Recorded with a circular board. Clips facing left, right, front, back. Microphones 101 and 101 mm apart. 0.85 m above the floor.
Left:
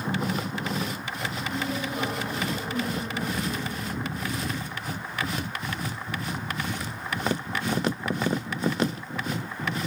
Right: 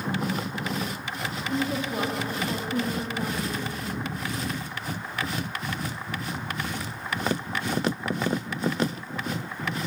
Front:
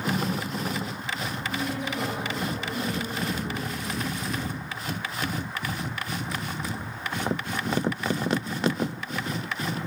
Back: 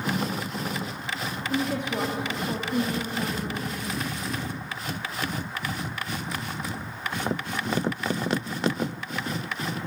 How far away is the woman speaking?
About 1.3 m.